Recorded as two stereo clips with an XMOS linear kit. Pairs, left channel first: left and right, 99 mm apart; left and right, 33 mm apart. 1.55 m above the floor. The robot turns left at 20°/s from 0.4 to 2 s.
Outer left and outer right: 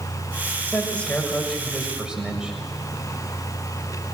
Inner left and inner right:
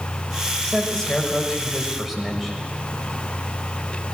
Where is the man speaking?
20° left (ahead or behind), 6.5 m; by 2.5 s 10° right (ahead or behind), 6.5 m.